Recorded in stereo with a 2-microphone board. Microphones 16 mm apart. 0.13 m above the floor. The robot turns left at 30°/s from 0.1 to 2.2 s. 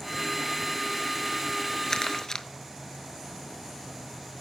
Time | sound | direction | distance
1.9 | crumpling | 45° left (ahead or behind) | 0.6 m